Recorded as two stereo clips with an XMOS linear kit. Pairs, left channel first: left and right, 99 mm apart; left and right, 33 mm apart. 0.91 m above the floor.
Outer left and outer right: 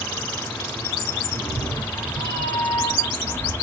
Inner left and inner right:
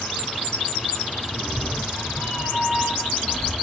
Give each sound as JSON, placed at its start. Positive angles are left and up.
{"t": 1.3, "sound": "a cat meowing", "side_deg": -45, "distance_m": 7.0}